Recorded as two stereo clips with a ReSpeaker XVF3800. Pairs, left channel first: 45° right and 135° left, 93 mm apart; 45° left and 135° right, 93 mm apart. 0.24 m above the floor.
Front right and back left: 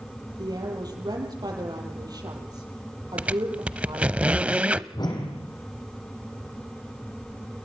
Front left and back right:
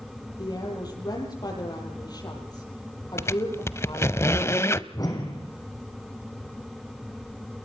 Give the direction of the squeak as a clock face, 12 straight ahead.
10 o'clock.